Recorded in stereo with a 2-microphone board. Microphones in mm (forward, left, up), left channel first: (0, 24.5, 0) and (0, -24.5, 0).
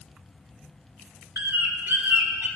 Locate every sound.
1.4 s a bird: 45° right (ahead or behind), 0.9 m